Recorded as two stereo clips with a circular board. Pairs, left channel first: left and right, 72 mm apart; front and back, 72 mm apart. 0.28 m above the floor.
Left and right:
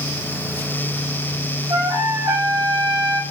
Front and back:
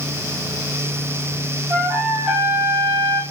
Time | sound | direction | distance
1.7 | a trumpet | 105° right | 7 m